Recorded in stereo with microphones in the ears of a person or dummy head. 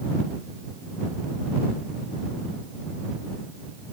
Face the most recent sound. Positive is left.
No sound to turn to.